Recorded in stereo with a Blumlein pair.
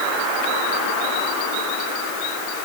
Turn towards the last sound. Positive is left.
No sound to turn to.